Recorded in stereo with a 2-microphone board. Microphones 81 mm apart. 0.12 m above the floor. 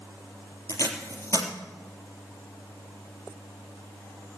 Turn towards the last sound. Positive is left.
turn(degrees=40)  # may be behind; listen again after turning